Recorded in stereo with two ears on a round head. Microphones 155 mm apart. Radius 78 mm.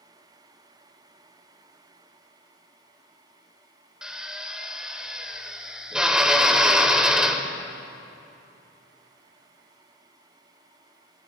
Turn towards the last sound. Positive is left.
turn(degrees=-5)  # may be behind; listen again after turning